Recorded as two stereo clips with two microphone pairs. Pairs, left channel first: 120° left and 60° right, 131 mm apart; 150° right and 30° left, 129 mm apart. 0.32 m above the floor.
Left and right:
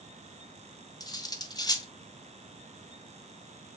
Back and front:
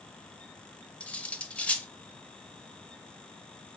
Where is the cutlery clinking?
135° left, 0.6 m.